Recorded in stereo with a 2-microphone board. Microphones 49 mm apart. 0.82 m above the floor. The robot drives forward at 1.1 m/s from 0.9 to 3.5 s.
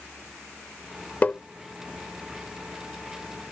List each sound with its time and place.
1.2 s tapping: 30° left (ahead or behind)